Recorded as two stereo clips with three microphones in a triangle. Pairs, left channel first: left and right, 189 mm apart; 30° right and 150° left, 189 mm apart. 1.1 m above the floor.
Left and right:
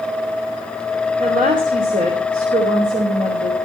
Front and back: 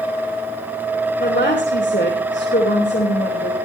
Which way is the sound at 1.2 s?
50° right.